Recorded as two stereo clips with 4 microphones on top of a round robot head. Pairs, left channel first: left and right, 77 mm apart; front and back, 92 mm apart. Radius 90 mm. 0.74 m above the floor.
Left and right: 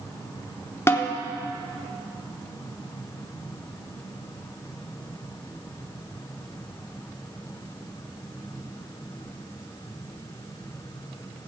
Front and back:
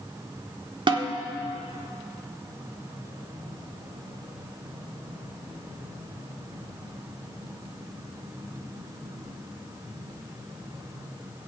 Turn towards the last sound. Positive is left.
turn(degrees=150)